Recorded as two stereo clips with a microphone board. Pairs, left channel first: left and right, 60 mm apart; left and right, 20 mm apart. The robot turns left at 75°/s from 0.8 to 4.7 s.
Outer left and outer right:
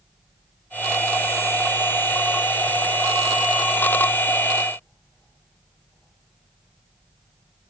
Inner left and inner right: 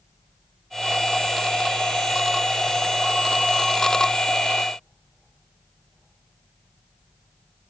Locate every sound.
Only background noise.